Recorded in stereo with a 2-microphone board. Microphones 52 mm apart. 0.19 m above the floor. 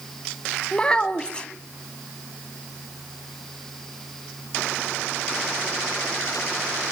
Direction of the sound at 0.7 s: 20° left (ahead or behind).